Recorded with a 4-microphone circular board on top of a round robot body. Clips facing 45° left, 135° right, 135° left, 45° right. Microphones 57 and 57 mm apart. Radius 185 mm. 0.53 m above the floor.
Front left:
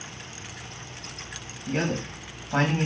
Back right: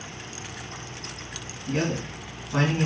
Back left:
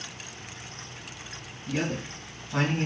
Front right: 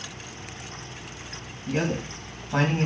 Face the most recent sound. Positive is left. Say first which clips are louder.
# even, front right 3 dB
turn(degrees=5)